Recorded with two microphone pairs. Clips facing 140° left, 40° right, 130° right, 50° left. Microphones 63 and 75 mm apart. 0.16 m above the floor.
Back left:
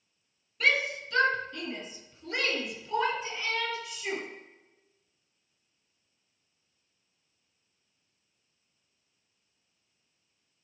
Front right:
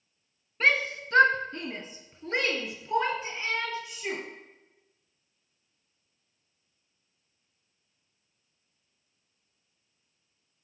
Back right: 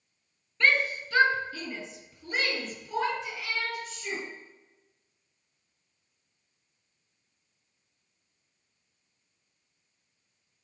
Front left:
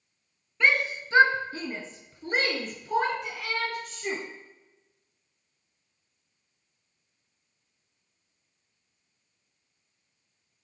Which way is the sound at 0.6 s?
20° right.